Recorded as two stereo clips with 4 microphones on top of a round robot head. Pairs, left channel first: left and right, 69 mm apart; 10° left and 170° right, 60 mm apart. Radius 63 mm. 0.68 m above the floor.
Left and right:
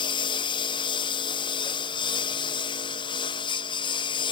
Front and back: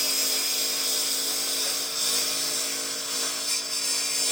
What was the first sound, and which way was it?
A lawn mower, 105° left.